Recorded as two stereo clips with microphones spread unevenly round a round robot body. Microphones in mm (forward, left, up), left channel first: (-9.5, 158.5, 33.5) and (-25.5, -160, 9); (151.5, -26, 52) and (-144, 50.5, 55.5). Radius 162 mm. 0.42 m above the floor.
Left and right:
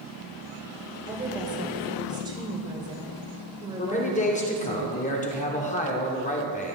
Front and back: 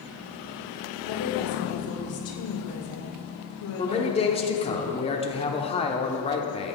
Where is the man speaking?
35° left, 1.1 m.